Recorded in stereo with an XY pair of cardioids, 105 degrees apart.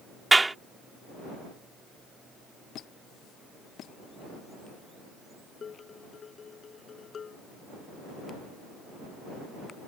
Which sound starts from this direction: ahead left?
Dishes clattering, at 5.6 s.